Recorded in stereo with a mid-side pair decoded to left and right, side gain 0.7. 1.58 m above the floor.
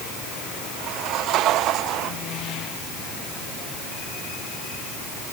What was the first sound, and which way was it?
Only background noise.